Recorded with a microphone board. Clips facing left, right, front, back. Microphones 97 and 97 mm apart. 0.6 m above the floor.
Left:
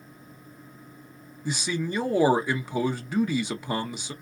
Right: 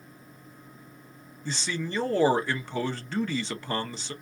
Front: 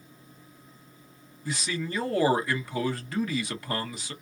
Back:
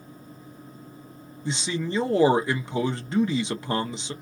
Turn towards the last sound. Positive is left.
turn(degrees=155)